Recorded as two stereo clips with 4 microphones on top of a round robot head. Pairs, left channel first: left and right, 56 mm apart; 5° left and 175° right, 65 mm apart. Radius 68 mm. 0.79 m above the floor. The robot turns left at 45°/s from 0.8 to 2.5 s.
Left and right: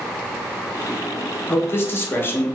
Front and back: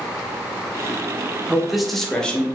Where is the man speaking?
110° left, 0.8 m; by 2.5 s 65° left, 0.8 m.